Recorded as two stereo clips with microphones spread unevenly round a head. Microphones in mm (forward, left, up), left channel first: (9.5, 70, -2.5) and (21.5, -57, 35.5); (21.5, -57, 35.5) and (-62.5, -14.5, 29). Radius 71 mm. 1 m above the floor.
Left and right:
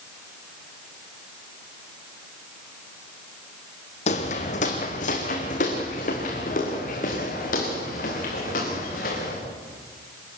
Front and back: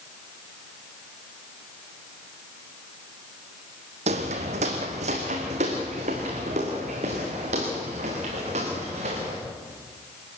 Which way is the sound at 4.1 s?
145° left.